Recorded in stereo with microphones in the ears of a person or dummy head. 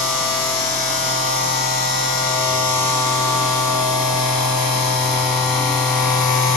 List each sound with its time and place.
0.0 s a machine running: centre (ahead or behind), 1.4 m